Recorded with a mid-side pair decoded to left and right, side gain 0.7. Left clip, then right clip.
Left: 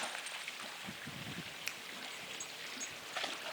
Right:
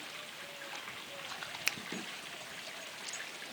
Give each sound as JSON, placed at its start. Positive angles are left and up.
{"t": 1.7, "sound": "a finger snap", "azimuth_deg": -35, "distance_m": 0.5}